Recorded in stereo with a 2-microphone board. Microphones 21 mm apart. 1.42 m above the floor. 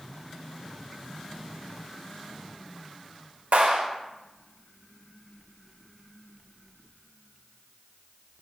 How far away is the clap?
About 4.5 m.